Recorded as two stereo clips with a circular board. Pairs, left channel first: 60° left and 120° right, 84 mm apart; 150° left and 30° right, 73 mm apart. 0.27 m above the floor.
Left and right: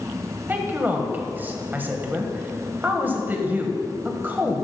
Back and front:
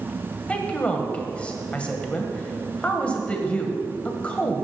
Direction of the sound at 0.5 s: 155° right.